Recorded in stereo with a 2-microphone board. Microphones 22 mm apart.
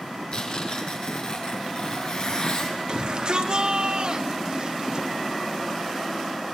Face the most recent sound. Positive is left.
turn(degrees=-45)  # may be behind; listen again after turning